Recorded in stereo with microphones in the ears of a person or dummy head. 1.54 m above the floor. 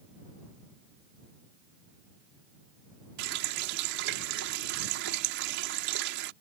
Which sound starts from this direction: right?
A running tap, at 3.2 s.